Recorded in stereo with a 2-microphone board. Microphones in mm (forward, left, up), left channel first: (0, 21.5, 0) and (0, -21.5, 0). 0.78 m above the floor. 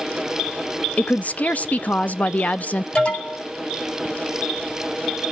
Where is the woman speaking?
40° left (ahead or behind), 0.6 m.